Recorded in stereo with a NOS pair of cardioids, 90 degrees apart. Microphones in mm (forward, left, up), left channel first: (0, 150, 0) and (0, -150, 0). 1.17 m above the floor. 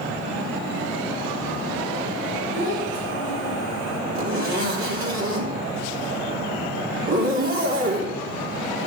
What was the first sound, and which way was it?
A child speaking, 40° right.